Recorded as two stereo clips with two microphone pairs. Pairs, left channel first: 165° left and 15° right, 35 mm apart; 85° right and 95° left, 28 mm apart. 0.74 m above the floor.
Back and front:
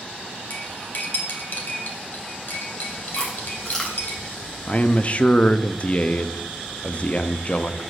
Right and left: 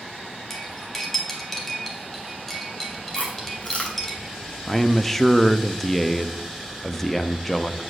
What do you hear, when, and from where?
0.5 s cutlery clinking: 160° right, 1.9 m
3.1 s chewing: 120° right, 2.5 m
4.7 s a man speaking: 160° right, 0.6 m